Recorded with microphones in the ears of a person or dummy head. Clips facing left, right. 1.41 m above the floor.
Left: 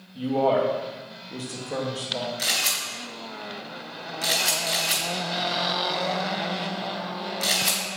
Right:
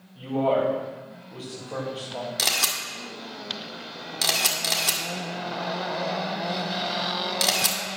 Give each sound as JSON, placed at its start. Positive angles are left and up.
{"t": 0.1, "sound": "a man speaking", "side_deg": 35, "distance_m": 2.5}
{"t": 2.4, "sound": "a camera shutter", "side_deg": -70, "distance_m": 2.0}